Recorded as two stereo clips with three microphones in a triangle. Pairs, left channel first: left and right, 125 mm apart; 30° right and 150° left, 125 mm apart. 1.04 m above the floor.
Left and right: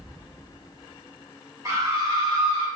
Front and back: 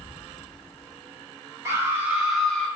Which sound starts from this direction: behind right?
A scream, at 1.6 s.